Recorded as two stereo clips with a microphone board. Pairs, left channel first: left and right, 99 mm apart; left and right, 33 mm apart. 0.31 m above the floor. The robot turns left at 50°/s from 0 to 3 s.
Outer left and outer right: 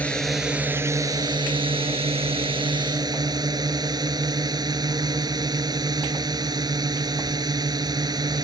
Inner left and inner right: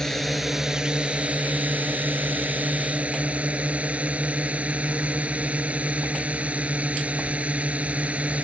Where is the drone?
15° left; by 8.4 s 135° right.